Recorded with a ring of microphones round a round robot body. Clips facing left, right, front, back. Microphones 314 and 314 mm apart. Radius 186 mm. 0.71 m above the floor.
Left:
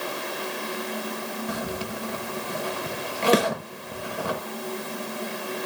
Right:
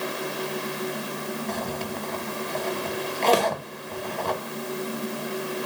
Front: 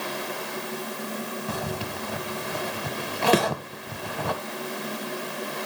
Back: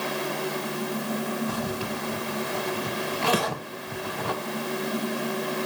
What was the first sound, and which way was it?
A zipper, 10° left.